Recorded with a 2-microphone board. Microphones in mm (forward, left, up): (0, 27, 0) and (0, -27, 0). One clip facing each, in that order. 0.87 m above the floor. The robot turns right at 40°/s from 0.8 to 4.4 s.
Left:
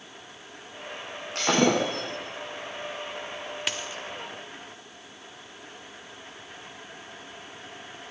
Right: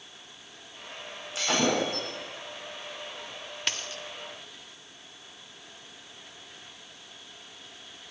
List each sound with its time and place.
1.4 s breaking glass: 55° left (ahead or behind), 5 m; by 2.1 s 80° left, 5 m
3.7 s a dropped coin: 5° left (ahead or behind), 0.8 m; by 4.0 s 20° left (ahead or behind), 0.8 m